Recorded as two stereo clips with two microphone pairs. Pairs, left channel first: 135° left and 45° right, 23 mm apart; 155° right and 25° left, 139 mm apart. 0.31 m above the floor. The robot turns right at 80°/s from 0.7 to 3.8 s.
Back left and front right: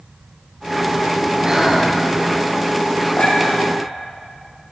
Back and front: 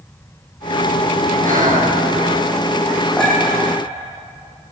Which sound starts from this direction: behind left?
A clink, at 3.2 s.